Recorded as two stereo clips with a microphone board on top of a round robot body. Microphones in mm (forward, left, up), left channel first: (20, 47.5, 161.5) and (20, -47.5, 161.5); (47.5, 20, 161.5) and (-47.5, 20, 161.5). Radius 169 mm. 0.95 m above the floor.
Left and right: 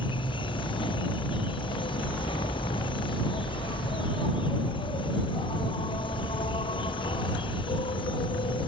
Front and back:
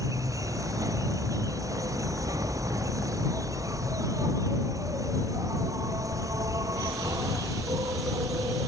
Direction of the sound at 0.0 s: 125° left.